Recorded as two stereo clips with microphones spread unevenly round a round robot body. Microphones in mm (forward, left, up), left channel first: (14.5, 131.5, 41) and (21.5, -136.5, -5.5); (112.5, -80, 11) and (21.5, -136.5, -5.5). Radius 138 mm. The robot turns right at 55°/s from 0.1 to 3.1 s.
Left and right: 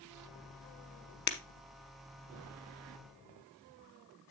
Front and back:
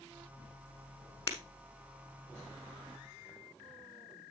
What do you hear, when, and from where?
1.3 s breaking glass: 70° left, 0.8 m; by 1.4 s 80° left, 0.8 m